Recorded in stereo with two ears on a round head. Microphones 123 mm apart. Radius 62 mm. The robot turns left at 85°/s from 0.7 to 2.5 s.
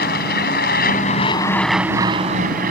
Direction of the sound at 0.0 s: 75° left (ahead or behind).